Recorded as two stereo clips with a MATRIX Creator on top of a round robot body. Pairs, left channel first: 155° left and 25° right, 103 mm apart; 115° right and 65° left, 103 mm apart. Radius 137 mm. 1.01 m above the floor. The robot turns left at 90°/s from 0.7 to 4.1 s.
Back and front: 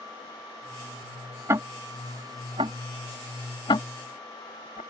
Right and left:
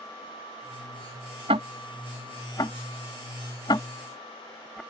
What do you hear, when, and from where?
1.5 s ticking: 40° left; by 4.8 s 165° left